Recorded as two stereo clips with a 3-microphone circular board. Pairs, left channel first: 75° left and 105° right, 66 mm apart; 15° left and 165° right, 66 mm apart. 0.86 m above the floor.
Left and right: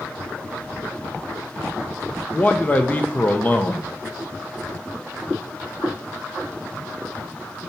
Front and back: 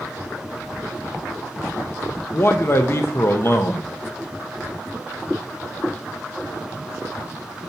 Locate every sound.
2.3 s a man speaking: 25° left, 0.7 m